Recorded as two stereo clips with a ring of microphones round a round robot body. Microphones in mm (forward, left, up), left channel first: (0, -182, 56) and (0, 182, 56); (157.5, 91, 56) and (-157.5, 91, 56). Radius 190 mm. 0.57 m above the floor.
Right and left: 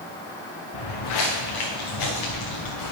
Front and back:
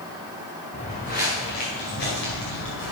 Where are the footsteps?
70° right, 3.5 m; by 2.9 s 55° right, 4.5 m.